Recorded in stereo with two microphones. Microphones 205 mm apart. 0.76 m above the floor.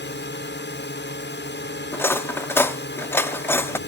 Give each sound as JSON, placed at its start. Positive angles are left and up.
{"t": 0.0, "sound": "a drone", "side_deg": 60}
{"t": 1.9, "sound": "cutlery clinking", "side_deg": 10}